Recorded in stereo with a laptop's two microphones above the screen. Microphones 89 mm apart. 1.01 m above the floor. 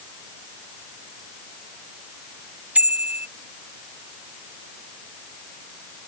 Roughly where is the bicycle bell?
Centre.